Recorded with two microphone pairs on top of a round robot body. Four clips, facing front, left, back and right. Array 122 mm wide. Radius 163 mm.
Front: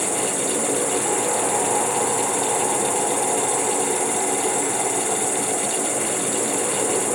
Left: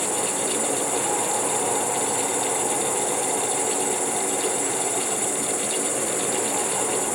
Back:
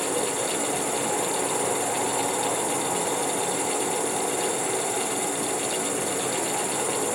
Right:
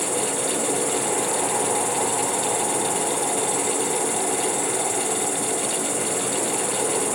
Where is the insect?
45° right, 7.5 m.